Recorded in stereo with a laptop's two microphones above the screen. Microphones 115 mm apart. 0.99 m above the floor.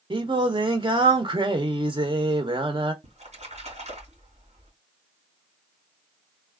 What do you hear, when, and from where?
0.1 s singing: 45° right (ahead or behind), 0.7 m
3.0 s a splash: 75° right (ahead or behind), 2.5 m